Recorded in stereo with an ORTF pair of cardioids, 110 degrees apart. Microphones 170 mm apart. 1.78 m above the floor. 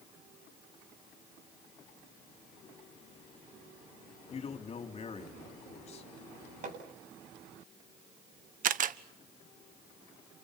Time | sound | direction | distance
4.3 | a man speaking | 35° left | 4 m
6.6 | hammering | 50° right | 9 m
8.6 | a camera shutter | 55° right | 1.3 m